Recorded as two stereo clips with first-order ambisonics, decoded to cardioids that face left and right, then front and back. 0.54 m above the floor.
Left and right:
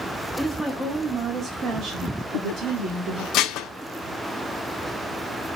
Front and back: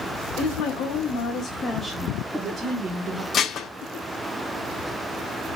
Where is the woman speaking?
Straight ahead, 1.7 m; by 3.2 s 130° right, 2.0 m.